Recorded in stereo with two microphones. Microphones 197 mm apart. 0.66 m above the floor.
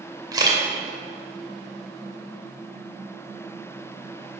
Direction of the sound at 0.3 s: 20° right (ahead or behind).